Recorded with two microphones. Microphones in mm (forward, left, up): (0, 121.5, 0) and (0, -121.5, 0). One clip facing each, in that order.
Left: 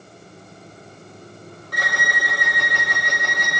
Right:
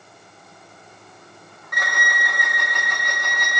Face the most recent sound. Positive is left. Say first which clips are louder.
# left 1 dB
turn(degrees=35)  # may be behind; listen again after turning